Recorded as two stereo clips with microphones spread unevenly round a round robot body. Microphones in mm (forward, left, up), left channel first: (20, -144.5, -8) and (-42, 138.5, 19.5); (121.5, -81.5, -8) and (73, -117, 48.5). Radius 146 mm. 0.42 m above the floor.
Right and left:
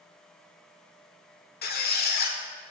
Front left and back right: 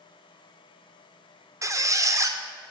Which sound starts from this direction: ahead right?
A squeak, at 1.6 s.